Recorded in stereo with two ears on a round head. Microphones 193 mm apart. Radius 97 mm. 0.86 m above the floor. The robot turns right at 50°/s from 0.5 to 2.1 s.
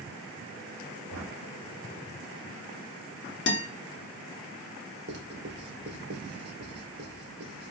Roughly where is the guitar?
Left.